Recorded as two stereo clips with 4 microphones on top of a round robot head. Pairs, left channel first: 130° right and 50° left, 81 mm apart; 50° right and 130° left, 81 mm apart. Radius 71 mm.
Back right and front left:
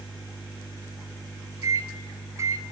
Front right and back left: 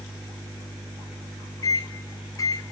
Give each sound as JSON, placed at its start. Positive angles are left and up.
{"t": 1.6, "sound": "a microwave", "azimuth_deg": -5, "distance_m": 3.0}